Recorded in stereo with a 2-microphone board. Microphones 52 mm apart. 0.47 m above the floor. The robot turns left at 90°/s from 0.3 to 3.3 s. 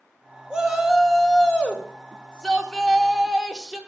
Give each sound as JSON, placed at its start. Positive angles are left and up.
{"t": 0.5, "sound": "a shout", "side_deg": -15, "distance_m": 0.7}